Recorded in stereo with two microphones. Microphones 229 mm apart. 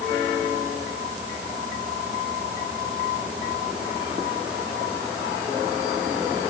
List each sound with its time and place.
Only background noise.